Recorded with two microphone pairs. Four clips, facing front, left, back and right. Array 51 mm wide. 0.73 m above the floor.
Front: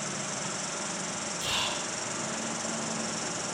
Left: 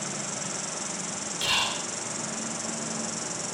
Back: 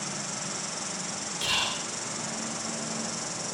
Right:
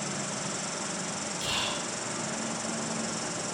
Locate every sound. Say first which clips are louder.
0.0 s an insect: right 1 dB, front 1 dB; 130° right, 1.5 m
1.4 s whispering: left 5 dB, back 3 dB; 105° left, 4.5 m